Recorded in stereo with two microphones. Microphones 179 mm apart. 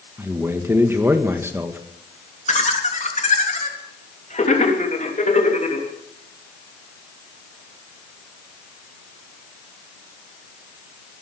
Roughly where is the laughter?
Left.